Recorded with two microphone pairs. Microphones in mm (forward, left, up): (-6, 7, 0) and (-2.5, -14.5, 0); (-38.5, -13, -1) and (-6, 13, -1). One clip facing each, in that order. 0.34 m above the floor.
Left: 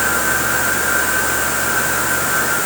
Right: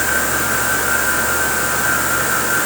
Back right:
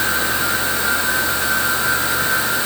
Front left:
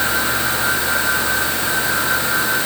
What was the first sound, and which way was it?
Only background noise.